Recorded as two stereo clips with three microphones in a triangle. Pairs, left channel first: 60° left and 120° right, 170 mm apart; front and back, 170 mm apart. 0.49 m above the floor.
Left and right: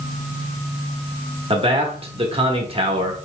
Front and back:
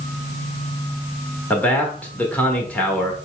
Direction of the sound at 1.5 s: 80° right.